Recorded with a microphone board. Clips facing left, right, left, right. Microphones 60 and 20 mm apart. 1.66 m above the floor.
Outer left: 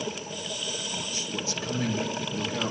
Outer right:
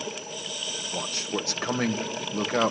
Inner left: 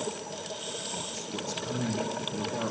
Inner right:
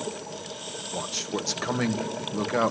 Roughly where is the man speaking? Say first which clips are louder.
Outer right 3 dB, inner right 5 dB; right.